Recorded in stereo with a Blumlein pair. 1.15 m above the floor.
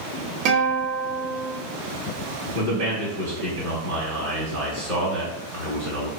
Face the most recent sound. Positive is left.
turn(degrees=-50)